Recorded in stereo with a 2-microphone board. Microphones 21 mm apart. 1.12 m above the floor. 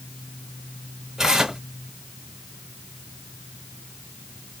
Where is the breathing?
I don't hear breathing.